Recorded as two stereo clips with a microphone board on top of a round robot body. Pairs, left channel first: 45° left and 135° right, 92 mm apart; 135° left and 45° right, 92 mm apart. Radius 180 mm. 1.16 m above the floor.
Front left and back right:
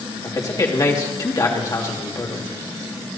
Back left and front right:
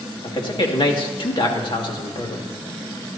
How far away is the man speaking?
About 2.5 m.